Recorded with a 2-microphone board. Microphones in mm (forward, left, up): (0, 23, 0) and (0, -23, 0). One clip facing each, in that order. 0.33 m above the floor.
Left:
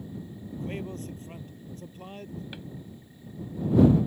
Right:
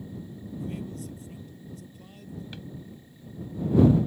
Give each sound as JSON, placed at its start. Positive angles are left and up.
{"t": 0.5, "sound": "a man speaking", "side_deg": 45}
{"t": 2.5, "sound": "a drawer", "side_deg": 15}